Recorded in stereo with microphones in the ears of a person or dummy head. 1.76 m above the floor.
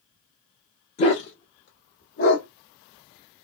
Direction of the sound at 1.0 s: 45° left (ahead or behind).